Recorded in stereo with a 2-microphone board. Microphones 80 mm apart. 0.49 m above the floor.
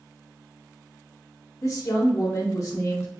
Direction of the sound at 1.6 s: 40° left (ahead or behind).